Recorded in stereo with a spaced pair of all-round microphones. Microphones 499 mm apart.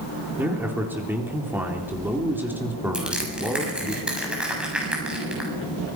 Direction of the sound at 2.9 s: Centre (ahead or behind).